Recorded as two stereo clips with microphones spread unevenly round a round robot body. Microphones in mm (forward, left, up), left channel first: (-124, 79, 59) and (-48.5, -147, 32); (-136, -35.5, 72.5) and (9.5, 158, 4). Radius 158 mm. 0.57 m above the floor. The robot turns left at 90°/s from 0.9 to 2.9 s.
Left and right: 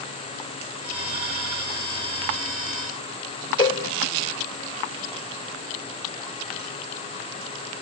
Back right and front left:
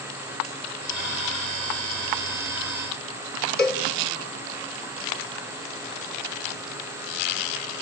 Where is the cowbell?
Straight behind, 3 m.